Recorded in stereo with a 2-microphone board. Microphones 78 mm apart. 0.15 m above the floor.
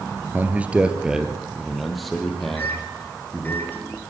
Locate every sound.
0.3 s a man speaking: 25° right (ahead or behind), 1.9 m; by 3.6 s 10° left (ahead or behind), 5 m
2.6 s a microwave: 25° left (ahead or behind), 3 m